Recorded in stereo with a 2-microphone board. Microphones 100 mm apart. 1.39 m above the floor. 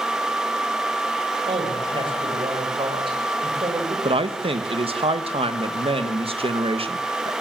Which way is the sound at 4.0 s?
75° right (ahead or behind).